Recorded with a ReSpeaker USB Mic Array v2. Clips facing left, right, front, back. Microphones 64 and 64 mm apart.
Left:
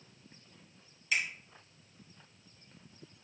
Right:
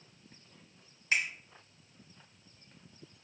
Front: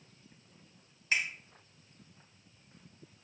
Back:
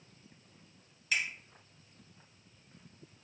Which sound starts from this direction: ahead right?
A finger snap, at 1.1 s.